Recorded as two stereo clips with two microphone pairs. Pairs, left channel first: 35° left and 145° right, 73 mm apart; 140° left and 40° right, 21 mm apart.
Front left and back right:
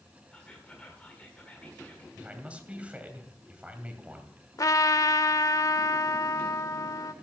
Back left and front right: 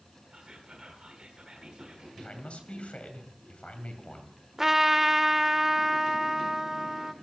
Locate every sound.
0.3 s whispering: 25° right, 1.4 m
2.2 s a man speaking: 145° left, 2 m
4.6 s a trumpet: 30° left, 0.7 m